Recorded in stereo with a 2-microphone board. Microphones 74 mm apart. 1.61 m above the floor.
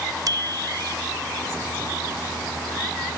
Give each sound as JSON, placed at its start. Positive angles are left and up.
{"t": 0.3, "sound": "a bicycle bell", "side_deg": -60}